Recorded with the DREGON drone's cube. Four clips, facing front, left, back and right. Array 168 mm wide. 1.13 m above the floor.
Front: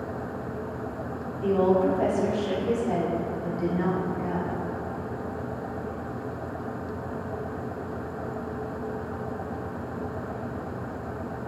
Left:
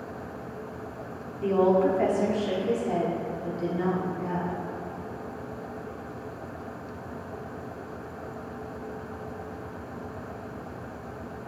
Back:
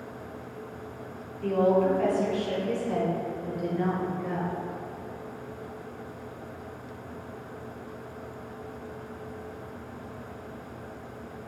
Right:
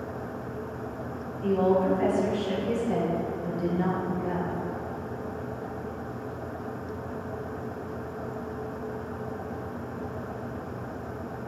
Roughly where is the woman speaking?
Left.